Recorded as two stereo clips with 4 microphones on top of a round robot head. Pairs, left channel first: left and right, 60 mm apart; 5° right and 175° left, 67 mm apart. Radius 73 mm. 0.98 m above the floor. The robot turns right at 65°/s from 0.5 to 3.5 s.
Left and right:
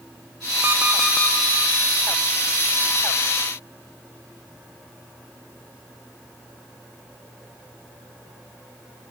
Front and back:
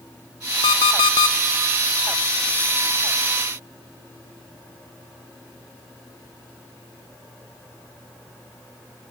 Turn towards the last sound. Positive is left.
turn(degrees=160)